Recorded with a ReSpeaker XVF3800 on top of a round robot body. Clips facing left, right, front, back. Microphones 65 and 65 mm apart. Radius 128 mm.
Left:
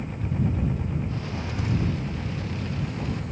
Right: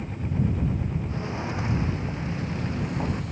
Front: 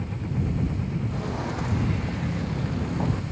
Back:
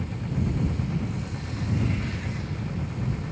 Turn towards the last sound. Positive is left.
turn(degrees=-30)